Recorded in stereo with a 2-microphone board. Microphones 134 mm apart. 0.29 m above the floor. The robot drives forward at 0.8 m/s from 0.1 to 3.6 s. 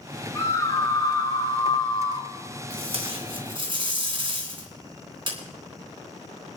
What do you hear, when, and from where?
0.3 s a scream: 25° left (ahead or behind), 3 m; by 2.3 s 40° left (ahead or behind), 2 m
2.7 s tape being pulled: 50° right (ahead or behind), 3 m; by 5.4 s 40° right (ahead or behind), 3 m